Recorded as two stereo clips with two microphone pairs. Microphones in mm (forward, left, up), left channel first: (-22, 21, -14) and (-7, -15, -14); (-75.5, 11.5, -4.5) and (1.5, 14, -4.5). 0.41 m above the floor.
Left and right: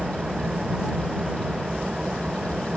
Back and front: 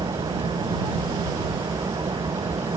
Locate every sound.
0.0 s an engine running: 5° left